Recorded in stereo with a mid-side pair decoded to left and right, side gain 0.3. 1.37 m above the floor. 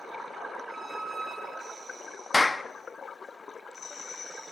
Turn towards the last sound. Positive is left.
turn(degrees=20)